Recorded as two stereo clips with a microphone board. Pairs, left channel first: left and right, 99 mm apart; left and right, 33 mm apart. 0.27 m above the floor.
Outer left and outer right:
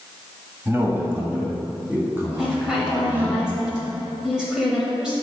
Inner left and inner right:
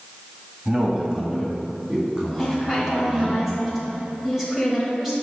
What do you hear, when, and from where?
0.7 s a man speaking: 20° right (ahead or behind), 1.2 m
2.4 s a woman speaking: 10° right (ahead or behind), 1.2 m